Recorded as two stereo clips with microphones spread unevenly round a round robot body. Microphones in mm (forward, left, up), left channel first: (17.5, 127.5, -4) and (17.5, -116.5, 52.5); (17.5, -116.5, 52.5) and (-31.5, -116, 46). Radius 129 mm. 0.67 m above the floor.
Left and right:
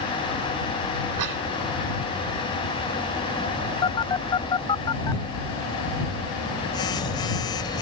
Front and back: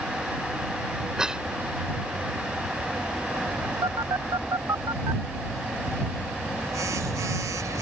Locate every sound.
1.2 s a cough: 105° right
3.8 s a phone buzzing: 170° left